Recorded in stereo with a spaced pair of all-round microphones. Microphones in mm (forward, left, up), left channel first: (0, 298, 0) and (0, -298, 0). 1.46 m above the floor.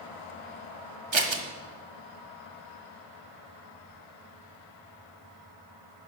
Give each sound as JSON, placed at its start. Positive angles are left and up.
{"t": 1.1, "sound": "scissors", "side_deg": -50, "distance_m": 0.9}